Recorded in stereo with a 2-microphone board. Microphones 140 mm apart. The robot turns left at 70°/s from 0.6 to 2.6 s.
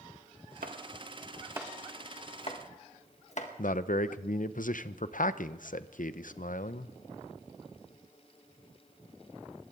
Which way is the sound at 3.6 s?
70° left (ahead or behind).